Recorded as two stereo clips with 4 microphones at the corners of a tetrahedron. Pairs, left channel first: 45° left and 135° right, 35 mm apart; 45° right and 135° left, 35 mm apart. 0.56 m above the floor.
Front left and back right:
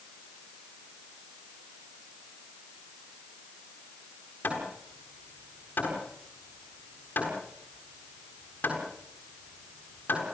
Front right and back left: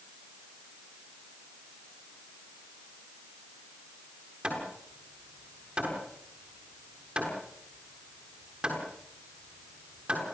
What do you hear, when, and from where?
4.4 s hammering: 75° left, 7.5 m